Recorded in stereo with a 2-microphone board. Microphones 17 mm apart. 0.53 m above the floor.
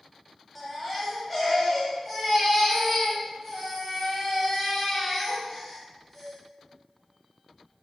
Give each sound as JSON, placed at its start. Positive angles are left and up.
{"t": 0.6, "sound": "a baby crying", "side_deg": 5, "distance_m": 1.5}